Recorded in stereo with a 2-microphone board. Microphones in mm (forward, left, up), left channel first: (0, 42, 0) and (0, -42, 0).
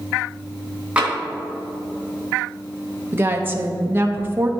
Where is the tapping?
15° right (ahead or behind), 1.8 m.